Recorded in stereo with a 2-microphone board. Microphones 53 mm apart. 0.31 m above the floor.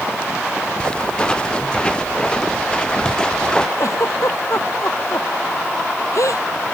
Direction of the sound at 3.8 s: 75° left (ahead or behind).